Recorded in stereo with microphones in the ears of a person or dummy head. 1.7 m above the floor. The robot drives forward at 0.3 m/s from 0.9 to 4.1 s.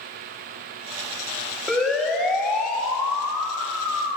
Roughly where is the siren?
Centre.